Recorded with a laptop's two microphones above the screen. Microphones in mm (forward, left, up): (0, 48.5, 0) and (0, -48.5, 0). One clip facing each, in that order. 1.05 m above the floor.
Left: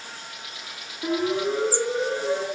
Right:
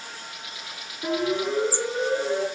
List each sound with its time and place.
1.0 s a siren: 10° left (ahead or behind), 2.5 m